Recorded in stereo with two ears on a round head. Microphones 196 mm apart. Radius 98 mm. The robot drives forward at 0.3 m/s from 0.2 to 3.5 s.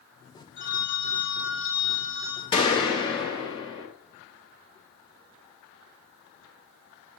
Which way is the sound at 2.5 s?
20° left (ahead or behind).